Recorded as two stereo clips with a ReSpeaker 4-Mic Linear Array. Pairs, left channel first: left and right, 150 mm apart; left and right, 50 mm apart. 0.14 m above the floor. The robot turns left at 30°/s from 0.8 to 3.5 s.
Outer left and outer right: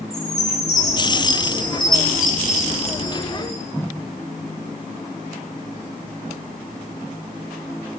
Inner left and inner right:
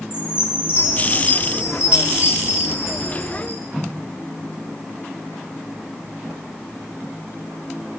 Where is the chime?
125° left, 2 m; by 3.6 s 45° left, 2 m.